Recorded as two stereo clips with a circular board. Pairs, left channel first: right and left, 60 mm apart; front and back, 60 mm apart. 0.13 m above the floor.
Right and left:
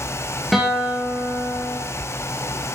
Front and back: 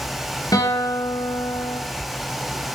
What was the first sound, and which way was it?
A guitar, straight ahead.